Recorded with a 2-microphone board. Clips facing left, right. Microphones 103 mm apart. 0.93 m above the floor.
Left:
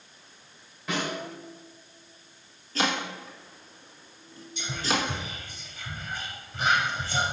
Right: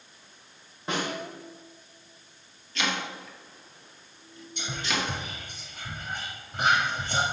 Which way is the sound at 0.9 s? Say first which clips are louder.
Even; 35° right (ahead or behind).